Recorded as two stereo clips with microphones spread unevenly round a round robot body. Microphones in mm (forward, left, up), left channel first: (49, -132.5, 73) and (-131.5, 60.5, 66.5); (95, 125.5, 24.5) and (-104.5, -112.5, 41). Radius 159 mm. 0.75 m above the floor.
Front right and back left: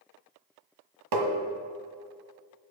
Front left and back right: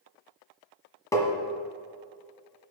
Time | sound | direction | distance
1.1 | tapping | 130° left | 1.6 m